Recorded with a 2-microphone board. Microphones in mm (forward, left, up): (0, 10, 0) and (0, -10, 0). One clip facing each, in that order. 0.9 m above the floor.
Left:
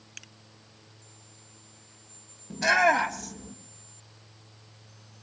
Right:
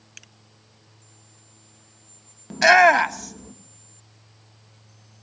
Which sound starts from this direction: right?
A shout, at 2.5 s.